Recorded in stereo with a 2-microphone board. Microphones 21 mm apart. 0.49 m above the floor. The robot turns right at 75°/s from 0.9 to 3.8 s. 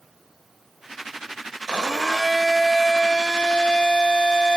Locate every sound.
1.7 s a blender: 60° right, 0.5 m; by 4.6 s 100° left, 0.5 m